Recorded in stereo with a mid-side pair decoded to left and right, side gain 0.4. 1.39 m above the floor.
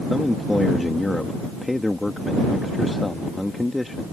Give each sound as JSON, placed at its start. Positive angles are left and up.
{"t": 0.1, "sound": "a man speaking", "azimuth_deg": 10}